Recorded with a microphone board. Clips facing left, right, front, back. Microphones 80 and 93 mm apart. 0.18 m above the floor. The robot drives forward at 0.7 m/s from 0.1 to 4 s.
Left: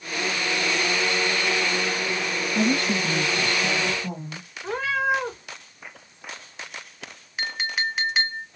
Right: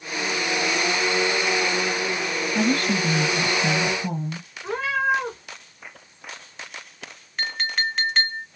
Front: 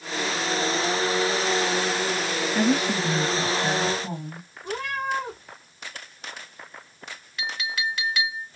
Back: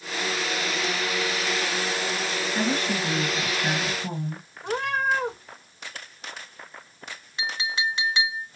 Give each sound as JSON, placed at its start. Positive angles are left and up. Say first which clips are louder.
{"t": 2.5, "sound": "a woman speaking", "louder": "right 1 dB, front 4 dB", "azimuth_deg": -70, "distance_m": 2.0}
{"t": 4.6, "sound": "a cat meowing", "louder": "right 1 dB, back 3 dB", "azimuth_deg": 180, "distance_m": 4.0}
{"t": 7.4, "sound": "a clink", "louder": "right 1 dB, back 1 dB", "azimuth_deg": 160, "distance_m": 0.6}